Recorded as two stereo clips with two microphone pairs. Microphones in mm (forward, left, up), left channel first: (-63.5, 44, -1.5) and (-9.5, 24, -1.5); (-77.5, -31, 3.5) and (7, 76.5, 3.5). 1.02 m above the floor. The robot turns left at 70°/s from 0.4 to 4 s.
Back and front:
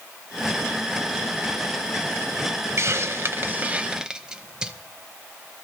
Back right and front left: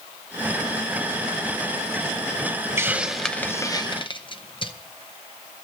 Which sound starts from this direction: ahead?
A hiss, at 2.8 s.